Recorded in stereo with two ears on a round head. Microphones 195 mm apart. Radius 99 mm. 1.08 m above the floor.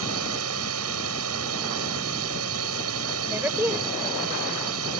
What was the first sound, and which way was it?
A drone, 80° right.